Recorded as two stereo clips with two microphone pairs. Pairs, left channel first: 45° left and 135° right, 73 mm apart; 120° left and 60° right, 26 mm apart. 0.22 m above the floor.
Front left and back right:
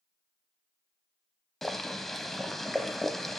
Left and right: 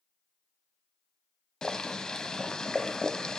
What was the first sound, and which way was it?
Boiling, 135° left.